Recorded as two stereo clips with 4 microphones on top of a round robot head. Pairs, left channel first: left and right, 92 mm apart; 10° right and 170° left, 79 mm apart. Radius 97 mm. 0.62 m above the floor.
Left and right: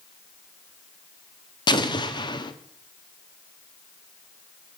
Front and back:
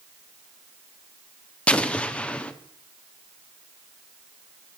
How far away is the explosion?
About 0.9 m.